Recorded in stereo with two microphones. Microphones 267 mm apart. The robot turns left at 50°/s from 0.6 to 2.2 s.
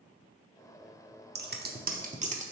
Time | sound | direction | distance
1.4 | scissors | 40° right (ahead or behind) | 0.5 m